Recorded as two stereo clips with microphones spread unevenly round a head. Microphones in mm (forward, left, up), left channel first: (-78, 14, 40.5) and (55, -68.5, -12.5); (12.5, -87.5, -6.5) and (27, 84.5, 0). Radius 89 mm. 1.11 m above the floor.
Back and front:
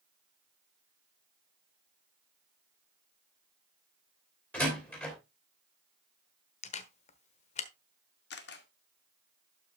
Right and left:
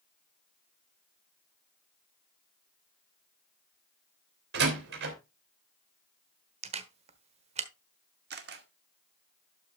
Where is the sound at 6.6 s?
135° left, 1.2 m.